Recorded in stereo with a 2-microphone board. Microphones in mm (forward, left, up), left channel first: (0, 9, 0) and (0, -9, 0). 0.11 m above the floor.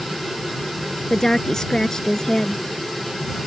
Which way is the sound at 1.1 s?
30° left (ahead or behind).